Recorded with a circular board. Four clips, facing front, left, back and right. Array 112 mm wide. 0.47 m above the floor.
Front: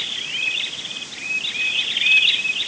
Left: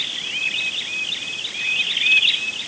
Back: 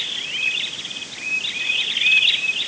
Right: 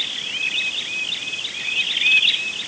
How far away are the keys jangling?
I don't hear keys jangling.